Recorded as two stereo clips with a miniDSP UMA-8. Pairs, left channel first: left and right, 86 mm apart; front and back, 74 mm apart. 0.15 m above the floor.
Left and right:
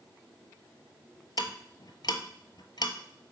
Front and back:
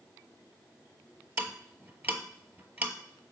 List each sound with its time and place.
1.4 s ticking: 120° left, 0.8 m